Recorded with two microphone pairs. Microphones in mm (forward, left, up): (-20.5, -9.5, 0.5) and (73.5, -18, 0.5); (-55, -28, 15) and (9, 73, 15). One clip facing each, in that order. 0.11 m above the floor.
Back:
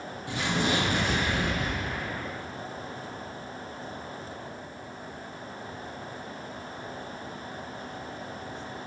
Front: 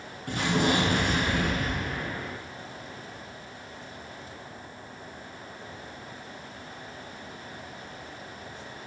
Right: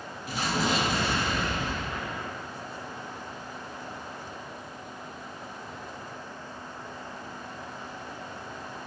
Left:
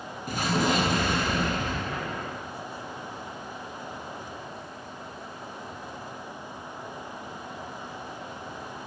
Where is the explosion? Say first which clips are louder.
Front 3 dB, left 3 dB; 25° left, 2.5 m.